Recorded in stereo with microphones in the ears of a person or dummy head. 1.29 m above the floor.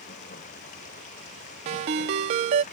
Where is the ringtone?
35° right (ahead or behind).